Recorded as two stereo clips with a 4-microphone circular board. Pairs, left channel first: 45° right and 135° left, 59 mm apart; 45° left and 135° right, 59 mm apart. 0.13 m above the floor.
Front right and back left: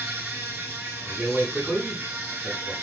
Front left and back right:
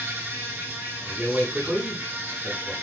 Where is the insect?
175° left, 0.8 m.